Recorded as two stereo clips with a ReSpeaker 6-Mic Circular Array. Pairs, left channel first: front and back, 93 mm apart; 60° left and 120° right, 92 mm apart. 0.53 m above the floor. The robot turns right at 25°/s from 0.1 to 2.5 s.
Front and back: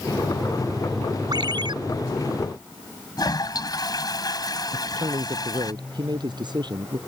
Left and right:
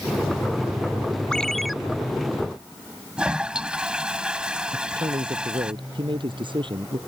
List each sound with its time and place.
1.3 s a ringtone: 140° left; by 1.7 s 150° left
3.2 s a toilet flushing: 40° right
4.7 s a man speaking: 145° right